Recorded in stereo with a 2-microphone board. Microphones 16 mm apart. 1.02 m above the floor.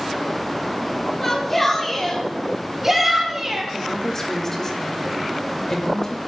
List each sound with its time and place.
1.2 s a shout: 20° left (ahead or behind), 3 m; by 3.6 s 30° right (ahead or behind), 3.5 m
3.7 s a woman speaking: 25° left (ahead or behind), 4.5 m